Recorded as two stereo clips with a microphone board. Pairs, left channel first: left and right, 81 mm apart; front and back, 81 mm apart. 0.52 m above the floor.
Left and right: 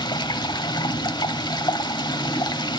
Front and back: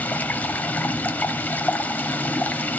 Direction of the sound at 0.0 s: 70° left.